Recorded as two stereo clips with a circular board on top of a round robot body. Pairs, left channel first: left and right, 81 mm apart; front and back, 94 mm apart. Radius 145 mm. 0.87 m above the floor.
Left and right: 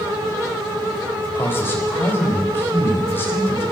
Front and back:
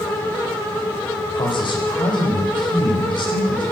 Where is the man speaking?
30° left, 4.5 m.